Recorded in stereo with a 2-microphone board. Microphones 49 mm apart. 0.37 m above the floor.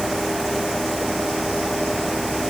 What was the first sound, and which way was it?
Only background noise.